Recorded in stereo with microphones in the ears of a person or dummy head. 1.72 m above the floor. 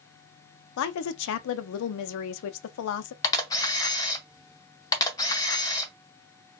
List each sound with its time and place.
0.8 s a woman speaking: 75° left (ahead or behind), 0.5 m
3.2 s a camera shutter: 20° left (ahead or behind), 0.5 m